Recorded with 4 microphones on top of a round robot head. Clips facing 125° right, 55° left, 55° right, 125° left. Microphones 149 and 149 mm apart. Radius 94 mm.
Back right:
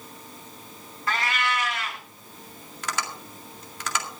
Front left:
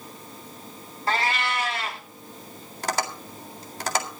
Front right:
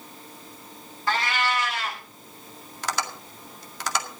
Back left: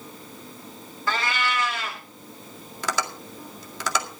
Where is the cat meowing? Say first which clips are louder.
Front left 2 dB, front right 1 dB; 120° left, 1.7 m.